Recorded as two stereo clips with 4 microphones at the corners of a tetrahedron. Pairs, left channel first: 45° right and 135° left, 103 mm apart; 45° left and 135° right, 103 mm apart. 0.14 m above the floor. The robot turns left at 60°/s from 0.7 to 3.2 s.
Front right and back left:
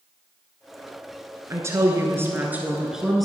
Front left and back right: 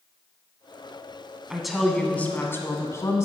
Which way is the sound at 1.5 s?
145° left.